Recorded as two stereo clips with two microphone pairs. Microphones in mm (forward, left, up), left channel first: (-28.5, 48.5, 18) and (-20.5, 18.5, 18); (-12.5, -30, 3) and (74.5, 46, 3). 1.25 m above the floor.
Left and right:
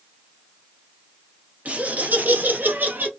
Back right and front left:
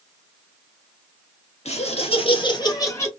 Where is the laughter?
115° right, 1.5 m; by 3.1 s 70° right, 1.4 m.